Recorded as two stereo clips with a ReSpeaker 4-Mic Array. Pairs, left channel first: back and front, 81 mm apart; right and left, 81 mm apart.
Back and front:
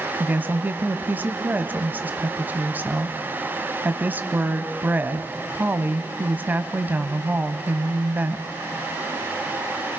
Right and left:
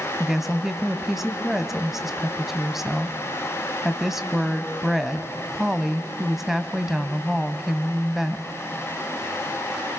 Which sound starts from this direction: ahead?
A woman speaking, at 0.2 s.